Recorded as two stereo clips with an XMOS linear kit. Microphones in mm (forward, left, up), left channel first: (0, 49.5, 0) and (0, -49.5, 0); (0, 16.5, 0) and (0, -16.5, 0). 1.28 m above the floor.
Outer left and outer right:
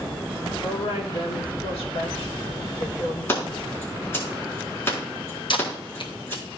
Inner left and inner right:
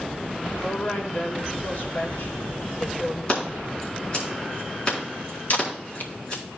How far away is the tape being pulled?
About 0.8 m.